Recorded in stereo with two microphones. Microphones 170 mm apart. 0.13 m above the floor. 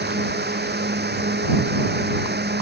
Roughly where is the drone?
Right.